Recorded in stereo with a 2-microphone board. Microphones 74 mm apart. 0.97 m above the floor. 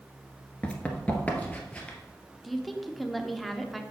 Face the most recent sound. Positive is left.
turn(degrees=0)  # may be behind; listen again after turning